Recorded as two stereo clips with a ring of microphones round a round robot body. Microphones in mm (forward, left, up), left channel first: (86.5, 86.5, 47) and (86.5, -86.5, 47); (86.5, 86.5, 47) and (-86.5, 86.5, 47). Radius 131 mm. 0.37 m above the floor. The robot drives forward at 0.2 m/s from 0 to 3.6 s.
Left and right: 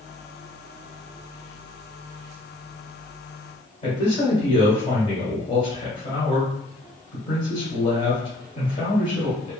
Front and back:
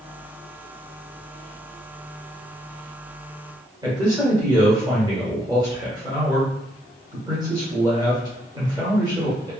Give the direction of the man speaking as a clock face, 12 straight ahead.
8 o'clock.